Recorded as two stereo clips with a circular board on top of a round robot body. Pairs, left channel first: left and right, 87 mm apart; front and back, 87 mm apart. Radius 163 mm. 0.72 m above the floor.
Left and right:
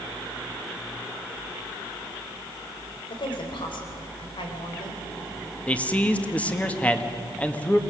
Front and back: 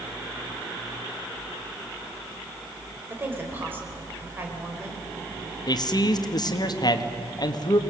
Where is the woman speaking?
115° left, 4 m.